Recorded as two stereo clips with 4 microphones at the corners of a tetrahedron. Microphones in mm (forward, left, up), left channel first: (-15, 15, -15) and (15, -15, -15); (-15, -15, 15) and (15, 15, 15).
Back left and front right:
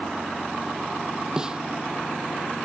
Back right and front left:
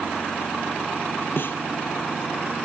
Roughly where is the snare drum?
Behind right.